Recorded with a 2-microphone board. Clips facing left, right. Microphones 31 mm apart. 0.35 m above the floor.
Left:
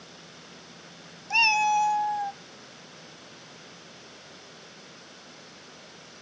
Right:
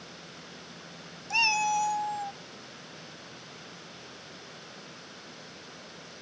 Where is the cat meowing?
15° left (ahead or behind); by 2.4 s 25° left (ahead or behind).